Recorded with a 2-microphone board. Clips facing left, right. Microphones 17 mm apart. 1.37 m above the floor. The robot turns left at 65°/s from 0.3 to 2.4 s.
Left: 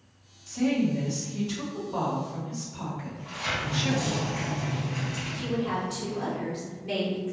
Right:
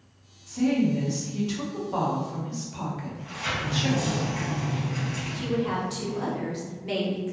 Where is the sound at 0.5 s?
40° left, 1.3 m; by 4.2 s 85° right, 1.3 m.